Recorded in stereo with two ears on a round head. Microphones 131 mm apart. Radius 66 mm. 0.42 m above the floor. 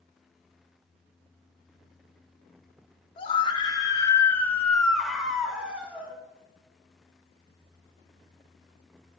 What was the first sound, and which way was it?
A scream, 35° left (ahead or behind).